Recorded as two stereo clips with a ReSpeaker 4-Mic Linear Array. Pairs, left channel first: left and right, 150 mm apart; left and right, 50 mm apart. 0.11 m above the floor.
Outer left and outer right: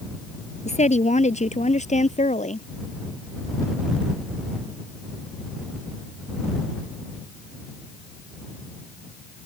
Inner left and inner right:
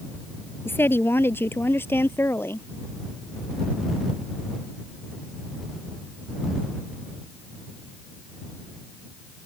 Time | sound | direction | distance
0.7 | a woman speaking | 50° left (ahead or behind) | ?